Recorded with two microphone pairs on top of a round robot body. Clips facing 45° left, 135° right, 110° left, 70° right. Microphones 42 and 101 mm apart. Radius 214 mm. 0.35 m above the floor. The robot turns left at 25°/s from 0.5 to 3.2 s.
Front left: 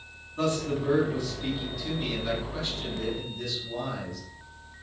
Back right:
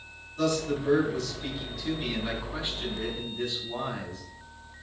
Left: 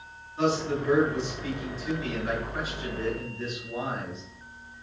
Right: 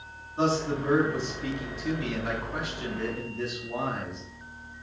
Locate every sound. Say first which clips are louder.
0.4 s a man speaking: even, even; 15° right, 5 m; by 4.2 s 80° right, 5 m